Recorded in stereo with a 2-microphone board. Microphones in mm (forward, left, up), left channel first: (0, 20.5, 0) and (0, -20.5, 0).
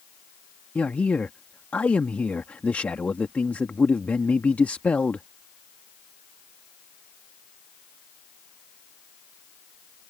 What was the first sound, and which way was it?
A man speaking, 40° left (ahead or behind).